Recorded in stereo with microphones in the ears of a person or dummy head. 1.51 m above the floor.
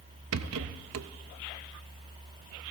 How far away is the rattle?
About 0.6 m.